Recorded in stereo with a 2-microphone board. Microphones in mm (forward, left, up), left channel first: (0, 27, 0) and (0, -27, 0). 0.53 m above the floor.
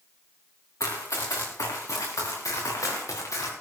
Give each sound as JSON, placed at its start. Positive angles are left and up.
{"t": 0.8, "sound": "running footsteps", "side_deg": 75, "distance_m": 3.5}